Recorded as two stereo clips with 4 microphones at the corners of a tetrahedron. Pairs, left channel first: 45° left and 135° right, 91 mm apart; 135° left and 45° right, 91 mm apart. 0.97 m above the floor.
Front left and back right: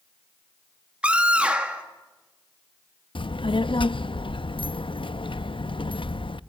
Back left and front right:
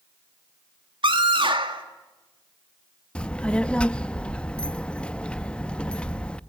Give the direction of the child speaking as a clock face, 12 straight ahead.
10 o'clock.